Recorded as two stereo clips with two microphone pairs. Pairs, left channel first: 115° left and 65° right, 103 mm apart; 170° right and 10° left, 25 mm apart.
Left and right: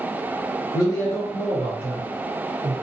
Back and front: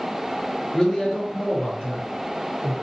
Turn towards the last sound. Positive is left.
turn(degrees=-170)